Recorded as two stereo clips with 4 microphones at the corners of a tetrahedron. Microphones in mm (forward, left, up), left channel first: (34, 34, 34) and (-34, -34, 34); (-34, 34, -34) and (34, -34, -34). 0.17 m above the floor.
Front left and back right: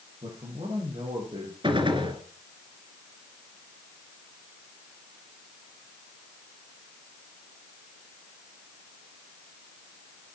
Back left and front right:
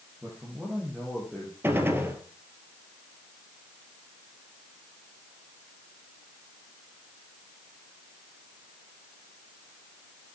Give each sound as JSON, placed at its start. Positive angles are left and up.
{"t": 0.2, "sound": "a man speaking", "azimuth_deg": -120, "distance_m": 9.0}
{"t": 1.6, "sound": "a gunshot", "azimuth_deg": -110, "distance_m": 3.0}